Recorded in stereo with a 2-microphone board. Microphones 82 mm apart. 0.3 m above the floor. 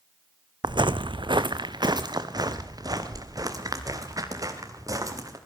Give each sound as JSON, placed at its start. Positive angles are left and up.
{"t": 0.6, "sound": "footsteps", "side_deg": -65, "distance_m": 0.8}